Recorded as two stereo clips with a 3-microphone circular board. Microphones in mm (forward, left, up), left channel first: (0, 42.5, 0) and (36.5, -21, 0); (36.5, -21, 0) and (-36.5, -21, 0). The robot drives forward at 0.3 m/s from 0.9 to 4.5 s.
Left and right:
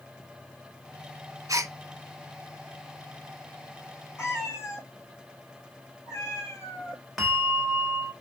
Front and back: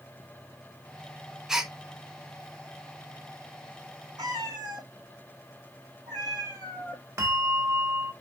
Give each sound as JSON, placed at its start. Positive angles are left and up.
{"t": 1.5, "sound": "a gasp", "azimuth_deg": -100, "distance_m": 1.1}
{"t": 4.2, "sound": "a cat meowing", "azimuth_deg": 175, "distance_m": 2.5}
{"t": 7.2, "sound": "a bell", "azimuth_deg": -145, "distance_m": 1.4}